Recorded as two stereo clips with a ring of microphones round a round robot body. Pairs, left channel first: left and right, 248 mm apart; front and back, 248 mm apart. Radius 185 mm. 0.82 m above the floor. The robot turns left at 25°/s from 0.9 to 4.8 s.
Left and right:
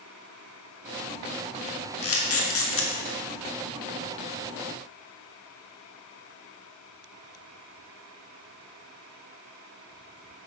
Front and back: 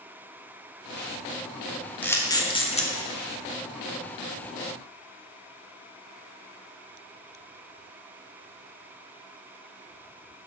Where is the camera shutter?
85° left, 1.7 m; by 2.9 s 60° left, 1.7 m.